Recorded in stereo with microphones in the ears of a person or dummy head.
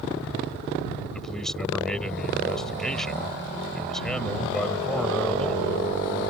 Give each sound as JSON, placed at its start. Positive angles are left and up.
{"t": 1.1, "sound": "a man speaking", "side_deg": 0}